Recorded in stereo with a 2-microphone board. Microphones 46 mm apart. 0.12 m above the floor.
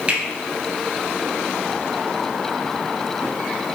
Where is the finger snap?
25° right (ahead or behind), 2 m.